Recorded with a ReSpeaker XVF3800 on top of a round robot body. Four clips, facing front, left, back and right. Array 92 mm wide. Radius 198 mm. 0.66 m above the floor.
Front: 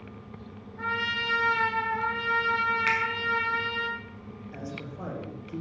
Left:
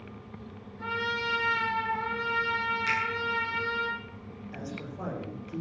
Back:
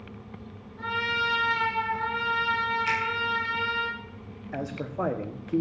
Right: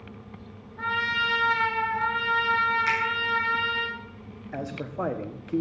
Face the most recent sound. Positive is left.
turn(degrees=-140)